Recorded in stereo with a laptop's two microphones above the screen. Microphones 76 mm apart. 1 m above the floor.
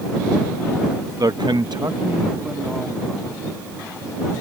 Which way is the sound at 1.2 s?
55° right (ahead or behind).